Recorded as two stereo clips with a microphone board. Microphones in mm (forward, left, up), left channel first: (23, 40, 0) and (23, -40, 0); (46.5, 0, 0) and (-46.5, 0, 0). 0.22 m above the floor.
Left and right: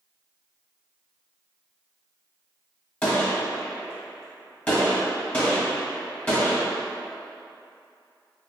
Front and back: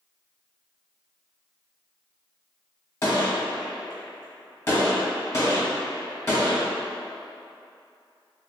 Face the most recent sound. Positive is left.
turn(degrees=35)